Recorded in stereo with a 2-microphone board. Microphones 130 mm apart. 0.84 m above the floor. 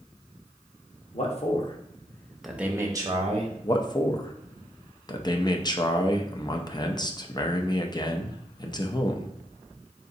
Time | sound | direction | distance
1.1 | a man speaking | 55° left (ahead or behind) | 1.0 m
3.6 | a man speaking | 35° left (ahead or behind) | 0.5 m